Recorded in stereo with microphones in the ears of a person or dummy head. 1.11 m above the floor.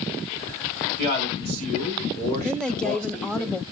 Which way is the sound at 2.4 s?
10° left (ahead or behind).